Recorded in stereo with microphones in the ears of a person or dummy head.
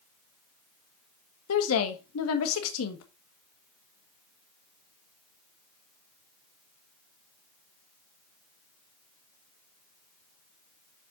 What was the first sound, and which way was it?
A woman speaking, 85° left.